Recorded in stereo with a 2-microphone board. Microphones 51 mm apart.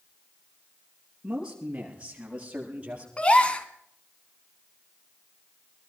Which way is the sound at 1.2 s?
20° right (ahead or behind).